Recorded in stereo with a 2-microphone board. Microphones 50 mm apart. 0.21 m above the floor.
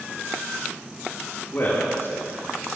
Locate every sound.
1.5 s a man speaking: 45° left (ahead or behind), 4 m; by 2.8 s 55° left (ahead or behind), 4 m